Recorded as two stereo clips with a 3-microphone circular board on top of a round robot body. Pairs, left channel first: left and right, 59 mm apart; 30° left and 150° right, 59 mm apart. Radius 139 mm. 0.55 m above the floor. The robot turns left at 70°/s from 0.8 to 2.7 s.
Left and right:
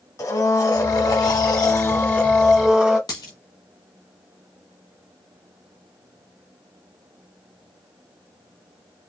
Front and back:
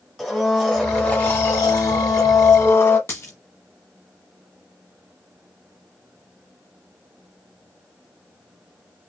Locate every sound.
0.2 s a blender: 120° left, 1.3 m; by 3.0 s 15° right, 1.3 m
3.1 s a dropped coin: 80° left, 1.0 m